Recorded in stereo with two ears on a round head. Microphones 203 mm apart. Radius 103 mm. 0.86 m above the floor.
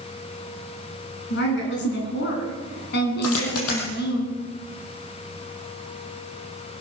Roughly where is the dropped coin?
Left.